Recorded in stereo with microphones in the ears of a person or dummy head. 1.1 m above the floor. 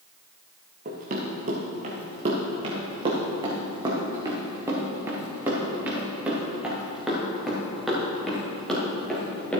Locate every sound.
0.8 s running footsteps: 50° right (ahead or behind), 3.5 m; by 9.6 s 5° left (ahead or behind), 5.5 m